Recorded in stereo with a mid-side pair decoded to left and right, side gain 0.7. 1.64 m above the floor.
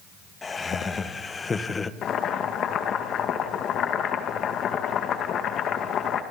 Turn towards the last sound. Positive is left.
turn(degrees=45)